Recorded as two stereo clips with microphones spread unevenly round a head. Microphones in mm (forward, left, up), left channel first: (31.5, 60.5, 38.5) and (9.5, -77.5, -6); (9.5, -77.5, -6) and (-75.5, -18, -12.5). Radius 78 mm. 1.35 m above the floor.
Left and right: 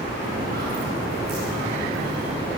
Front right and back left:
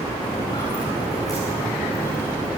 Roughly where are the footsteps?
Right.